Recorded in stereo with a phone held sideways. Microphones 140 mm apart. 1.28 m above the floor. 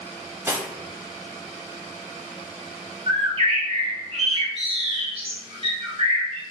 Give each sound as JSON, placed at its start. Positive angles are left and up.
{"t": 0.5, "sound": "cutlery clinking", "side_deg": -15, "distance_m": 0.6}
{"t": 3.1, "sound": "a bird", "side_deg": -40, "distance_m": 0.7}